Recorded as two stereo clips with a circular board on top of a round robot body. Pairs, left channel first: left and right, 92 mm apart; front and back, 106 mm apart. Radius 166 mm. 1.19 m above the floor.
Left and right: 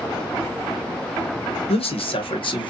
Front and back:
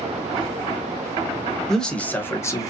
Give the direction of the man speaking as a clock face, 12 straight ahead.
9 o'clock.